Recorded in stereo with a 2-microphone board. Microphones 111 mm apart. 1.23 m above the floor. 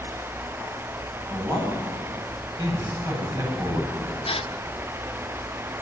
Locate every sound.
1.3 s a man speaking: 35° right (ahead or behind), 9 m
4.2 s a gasp: 55° left (ahead or behind), 0.7 m